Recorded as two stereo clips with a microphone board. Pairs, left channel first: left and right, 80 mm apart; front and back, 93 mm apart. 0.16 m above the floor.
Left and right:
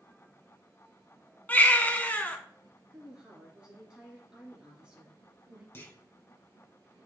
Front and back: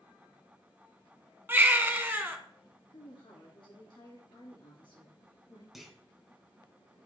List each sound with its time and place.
1.5 s a baby crying: 140° left, 1.0 m
2.9 s a woman speaking: 10° right, 3 m
5.7 s a clunk: 95° left, 1.6 m